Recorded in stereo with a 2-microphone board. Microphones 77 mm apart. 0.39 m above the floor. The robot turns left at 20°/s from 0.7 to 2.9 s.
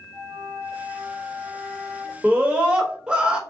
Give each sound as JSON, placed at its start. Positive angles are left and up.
{"t": 0.1, "sound": "a flute", "side_deg": 40, "distance_m": 2.5}
{"t": 2.2, "sound": "a scream", "side_deg": -20, "distance_m": 1.2}